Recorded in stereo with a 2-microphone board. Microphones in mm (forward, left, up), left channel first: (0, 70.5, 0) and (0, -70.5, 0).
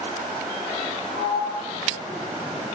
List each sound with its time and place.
1.1 s a sliding door: 40° right (ahead or behind), 1.7 m